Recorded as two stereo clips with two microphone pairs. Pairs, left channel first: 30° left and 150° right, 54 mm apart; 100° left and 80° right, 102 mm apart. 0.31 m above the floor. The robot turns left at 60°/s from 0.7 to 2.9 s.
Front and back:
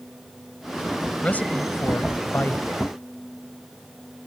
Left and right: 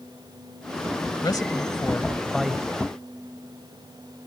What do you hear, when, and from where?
1.2 s a man speaking: 80° left; by 2.9 s 20° right